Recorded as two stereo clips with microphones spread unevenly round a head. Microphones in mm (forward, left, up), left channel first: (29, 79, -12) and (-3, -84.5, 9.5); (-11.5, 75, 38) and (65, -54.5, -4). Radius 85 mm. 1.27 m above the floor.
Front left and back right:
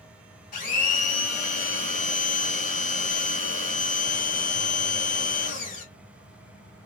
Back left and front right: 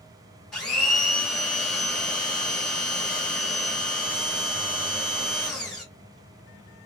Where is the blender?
40° left, 3 m.